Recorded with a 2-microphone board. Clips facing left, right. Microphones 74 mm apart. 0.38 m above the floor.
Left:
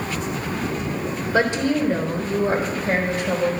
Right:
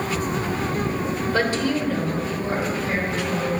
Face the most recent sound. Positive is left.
turn(degrees=55)  # may be behind; listen again after turning